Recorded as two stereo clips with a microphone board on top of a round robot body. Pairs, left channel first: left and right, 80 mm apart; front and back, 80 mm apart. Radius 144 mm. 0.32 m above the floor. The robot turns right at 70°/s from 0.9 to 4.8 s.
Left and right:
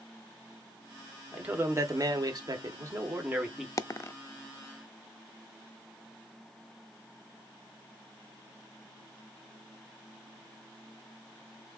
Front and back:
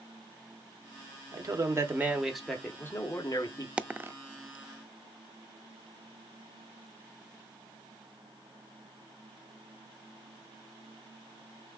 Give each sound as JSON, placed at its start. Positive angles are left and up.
{"t": 1.3, "sound": "a man speaking", "azimuth_deg": -165, "distance_m": 1.5}
{"t": 3.8, "sound": "a dropped coin", "azimuth_deg": 110, "distance_m": 0.6}